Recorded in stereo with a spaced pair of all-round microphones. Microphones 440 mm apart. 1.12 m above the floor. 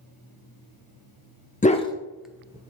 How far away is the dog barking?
About 0.7 m.